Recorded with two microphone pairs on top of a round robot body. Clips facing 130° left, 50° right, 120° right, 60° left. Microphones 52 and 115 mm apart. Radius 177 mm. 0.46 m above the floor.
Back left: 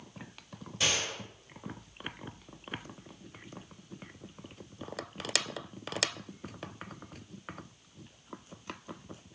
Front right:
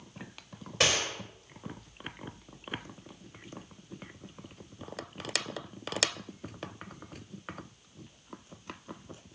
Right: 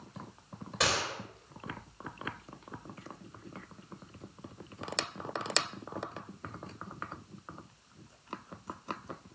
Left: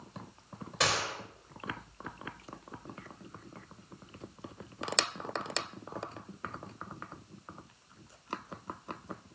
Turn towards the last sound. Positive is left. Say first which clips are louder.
# front right 4 dB, even
turn(degrees=-30)